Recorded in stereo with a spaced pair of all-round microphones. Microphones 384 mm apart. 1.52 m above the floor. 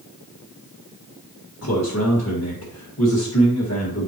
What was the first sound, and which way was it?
A man speaking, 40° left (ahead or behind).